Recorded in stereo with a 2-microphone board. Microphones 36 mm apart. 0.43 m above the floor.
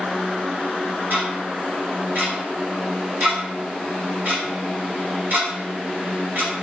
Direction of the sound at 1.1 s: 60° right (ahead or behind).